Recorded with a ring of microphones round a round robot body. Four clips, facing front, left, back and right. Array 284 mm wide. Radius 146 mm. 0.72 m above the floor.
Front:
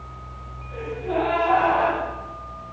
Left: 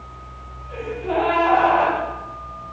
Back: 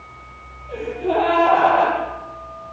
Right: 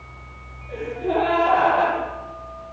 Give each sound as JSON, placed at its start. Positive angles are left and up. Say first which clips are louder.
{"t": 0.7, "sound": "a gasp", "louder": "even, back 5 dB", "azimuth_deg": -150, "distance_m": 9.0}